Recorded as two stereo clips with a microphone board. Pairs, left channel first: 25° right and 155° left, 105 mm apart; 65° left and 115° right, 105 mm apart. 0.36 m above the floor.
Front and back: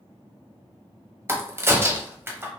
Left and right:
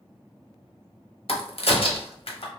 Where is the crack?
90° left, 0.7 m.